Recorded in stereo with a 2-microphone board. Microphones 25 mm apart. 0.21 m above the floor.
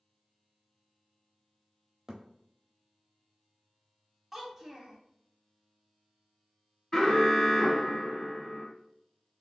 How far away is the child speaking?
About 0.8 m.